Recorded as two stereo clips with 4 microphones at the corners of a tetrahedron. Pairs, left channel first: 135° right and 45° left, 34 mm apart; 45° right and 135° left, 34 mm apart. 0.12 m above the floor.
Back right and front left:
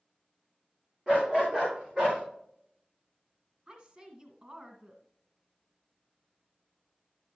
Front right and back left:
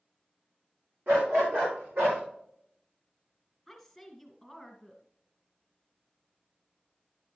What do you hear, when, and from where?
1.1 s a dog barking: 135° left, 4.5 m; by 2.2 s 125° left, 4.5 m
3.7 s a woman speaking: 50° left, 1.6 m